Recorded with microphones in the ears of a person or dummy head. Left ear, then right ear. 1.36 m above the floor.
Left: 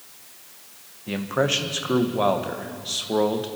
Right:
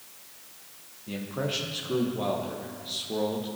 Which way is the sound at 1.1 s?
55° left (ahead or behind).